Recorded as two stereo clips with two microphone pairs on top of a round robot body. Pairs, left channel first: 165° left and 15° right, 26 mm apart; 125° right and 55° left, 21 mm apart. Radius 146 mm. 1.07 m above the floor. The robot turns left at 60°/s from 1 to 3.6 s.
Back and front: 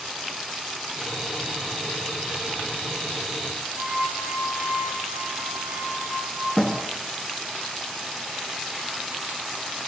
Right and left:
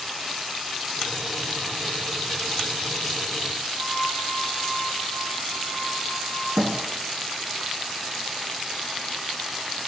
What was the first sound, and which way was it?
A flute, 35° right.